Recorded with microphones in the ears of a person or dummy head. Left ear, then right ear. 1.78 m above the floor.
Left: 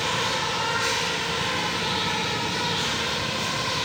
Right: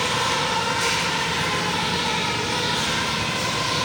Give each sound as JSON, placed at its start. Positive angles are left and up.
{"t": 0.0, "sound": "an insect", "side_deg": -50, "distance_m": 2.5}